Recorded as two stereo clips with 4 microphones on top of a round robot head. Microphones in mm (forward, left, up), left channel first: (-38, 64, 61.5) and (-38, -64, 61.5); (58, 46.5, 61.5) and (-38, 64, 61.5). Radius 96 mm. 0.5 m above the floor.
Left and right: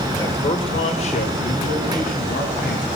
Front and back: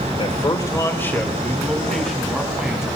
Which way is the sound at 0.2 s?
25° left.